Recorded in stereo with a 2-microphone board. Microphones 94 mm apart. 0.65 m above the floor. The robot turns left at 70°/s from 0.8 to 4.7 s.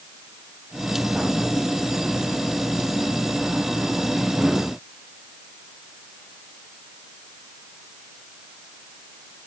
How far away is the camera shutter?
No camera shutter in this recording.